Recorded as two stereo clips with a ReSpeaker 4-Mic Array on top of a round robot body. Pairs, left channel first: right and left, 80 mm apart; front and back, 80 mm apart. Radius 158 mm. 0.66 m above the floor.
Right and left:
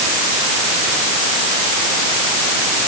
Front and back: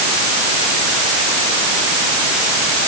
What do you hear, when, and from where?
Only background noise.